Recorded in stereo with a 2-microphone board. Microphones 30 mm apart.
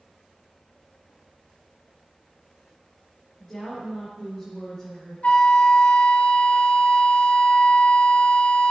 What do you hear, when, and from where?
3.4 s a woman speaking: 25° left (ahead or behind), 3.5 m
5.2 s a flute: 50° left (ahead or behind), 0.8 m